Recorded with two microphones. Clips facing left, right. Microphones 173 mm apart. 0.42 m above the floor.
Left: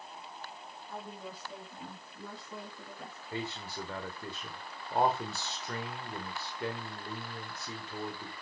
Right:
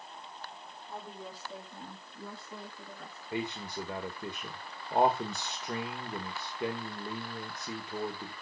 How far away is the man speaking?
About 1.6 m.